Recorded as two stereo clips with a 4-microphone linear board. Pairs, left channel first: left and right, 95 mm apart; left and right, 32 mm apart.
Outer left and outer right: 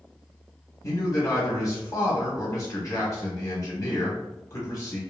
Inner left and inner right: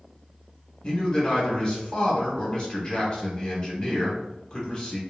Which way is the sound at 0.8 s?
35° left (ahead or behind).